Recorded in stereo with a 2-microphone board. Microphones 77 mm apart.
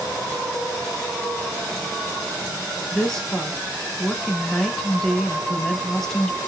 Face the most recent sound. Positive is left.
turn(degrees=10)  # may be behind; listen again after turning